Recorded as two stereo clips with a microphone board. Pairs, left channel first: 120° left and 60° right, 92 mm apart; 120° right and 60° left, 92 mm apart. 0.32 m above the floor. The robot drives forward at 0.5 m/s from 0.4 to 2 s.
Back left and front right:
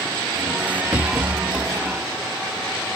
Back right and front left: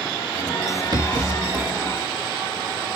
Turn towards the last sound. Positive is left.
turn(degrees=20)